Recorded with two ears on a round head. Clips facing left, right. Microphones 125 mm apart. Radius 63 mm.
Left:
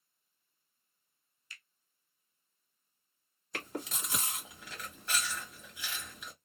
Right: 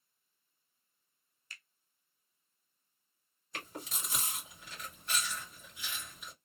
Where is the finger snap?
40° right (ahead or behind), 0.9 m.